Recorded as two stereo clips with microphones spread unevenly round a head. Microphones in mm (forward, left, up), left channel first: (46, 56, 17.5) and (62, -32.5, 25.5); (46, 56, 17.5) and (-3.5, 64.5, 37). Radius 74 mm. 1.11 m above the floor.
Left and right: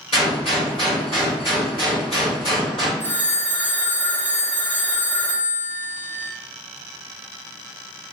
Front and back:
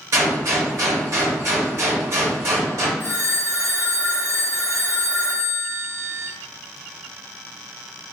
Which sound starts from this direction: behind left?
A gunshot, at 0.1 s.